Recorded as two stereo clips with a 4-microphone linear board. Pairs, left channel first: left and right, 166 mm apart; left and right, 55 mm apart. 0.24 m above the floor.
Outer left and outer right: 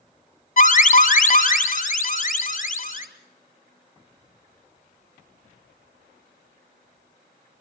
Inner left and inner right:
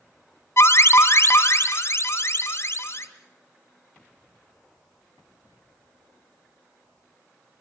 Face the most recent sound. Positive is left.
turn(degrees=55)  # may be behind; listen again after turning